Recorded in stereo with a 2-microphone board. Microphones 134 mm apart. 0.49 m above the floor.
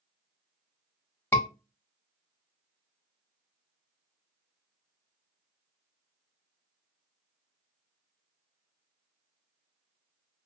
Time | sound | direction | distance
1.3 | a scream | 20° left (ahead or behind) | 1.3 m